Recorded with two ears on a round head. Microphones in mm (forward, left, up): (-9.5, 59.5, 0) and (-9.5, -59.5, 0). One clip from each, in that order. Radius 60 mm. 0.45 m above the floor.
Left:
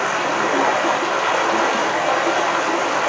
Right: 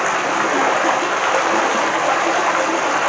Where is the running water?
35° right (ahead or behind), 2.5 m.